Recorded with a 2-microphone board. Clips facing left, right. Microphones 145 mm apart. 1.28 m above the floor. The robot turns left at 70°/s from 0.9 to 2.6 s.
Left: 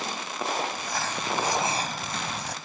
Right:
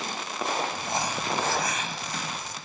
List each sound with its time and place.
0.7 s crumpling: 155° right; by 2.5 s 90° left